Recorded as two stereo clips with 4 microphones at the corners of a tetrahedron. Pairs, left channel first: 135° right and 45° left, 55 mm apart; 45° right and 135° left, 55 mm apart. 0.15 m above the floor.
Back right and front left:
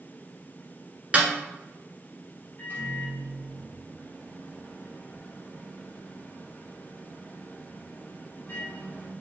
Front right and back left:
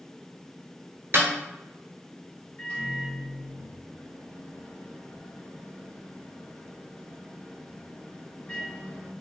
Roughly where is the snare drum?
Left.